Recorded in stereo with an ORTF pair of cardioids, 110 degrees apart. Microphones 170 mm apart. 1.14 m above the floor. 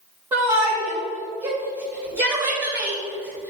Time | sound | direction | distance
0.3 | a shout | 30° right | 2 m